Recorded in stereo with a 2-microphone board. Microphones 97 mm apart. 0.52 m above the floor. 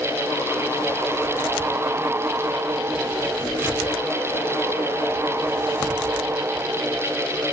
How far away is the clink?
No clink in this recording.